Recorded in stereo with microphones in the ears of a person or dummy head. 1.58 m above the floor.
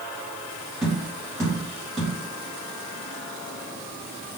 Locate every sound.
0.8 s tapping: centre (ahead or behind), 1.0 m